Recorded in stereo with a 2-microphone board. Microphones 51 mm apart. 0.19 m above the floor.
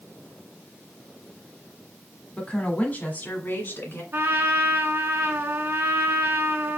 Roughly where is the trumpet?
Right.